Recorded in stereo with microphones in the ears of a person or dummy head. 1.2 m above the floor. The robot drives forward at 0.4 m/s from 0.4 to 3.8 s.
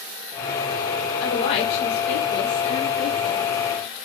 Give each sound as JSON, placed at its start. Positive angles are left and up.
{"t": 1.2, "sound": "a woman speaking", "side_deg": 45, "distance_m": 3.0}